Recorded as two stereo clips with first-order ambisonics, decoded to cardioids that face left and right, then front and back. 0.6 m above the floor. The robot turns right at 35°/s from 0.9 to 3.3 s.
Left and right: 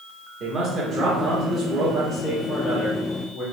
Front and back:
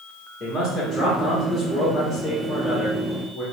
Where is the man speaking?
85° right, 1.3 m; by 3.4 s straight ahead, 1.3 m.